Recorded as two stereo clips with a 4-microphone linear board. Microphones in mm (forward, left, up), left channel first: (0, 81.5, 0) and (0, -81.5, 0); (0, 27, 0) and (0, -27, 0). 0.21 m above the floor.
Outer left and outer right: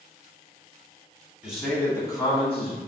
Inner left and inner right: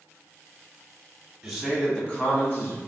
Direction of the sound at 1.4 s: 5° right (ahead or behind).